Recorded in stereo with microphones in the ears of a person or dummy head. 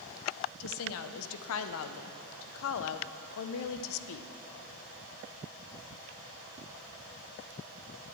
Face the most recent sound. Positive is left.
turn(degrees=75)  # may be behind; listen again after turning